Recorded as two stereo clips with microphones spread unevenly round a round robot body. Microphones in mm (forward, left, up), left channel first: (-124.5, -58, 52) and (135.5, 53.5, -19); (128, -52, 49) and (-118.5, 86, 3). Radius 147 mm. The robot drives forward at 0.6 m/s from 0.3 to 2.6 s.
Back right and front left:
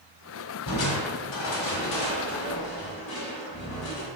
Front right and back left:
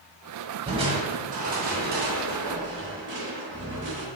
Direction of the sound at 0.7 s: 135° right.